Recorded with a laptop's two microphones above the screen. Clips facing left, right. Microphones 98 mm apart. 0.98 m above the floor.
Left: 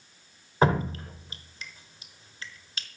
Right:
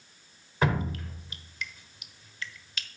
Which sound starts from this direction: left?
Dripping, at 0.6 s.